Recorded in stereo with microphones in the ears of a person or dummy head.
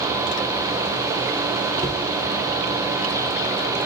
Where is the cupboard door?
20° right (ahead or behind), 0.7 m.